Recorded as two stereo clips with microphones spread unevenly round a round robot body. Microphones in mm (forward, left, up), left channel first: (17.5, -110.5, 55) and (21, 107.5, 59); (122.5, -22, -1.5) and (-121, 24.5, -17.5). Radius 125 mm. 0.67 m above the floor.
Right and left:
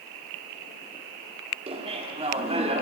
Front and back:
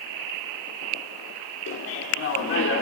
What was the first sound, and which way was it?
Laughter, 30° left.